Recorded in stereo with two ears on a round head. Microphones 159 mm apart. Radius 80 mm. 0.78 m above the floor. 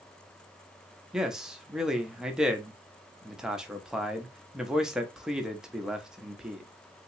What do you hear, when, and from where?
1.1 s a man speaking: 5° right (ahead or behind), 0.8 m